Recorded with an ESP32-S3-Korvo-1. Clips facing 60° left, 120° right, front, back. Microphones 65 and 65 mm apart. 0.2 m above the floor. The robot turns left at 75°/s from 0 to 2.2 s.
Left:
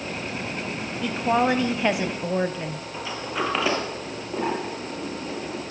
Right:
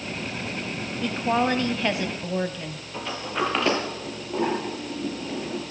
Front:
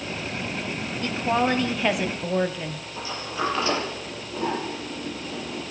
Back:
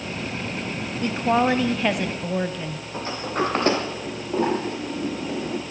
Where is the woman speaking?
155° left, 1.0 m; by 2.8 s 70° left, 1.0 m.